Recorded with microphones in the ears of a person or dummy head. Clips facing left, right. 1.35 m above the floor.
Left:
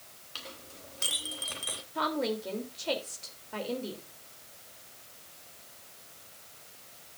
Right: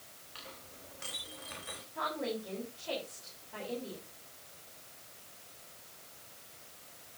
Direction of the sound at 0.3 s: 60° left (ahead or behind).